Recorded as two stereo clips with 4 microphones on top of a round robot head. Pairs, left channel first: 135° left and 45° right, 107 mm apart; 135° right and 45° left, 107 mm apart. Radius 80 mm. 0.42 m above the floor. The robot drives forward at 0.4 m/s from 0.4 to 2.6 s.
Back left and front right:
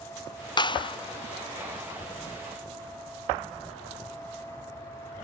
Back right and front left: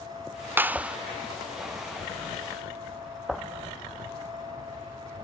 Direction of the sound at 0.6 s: 110° left.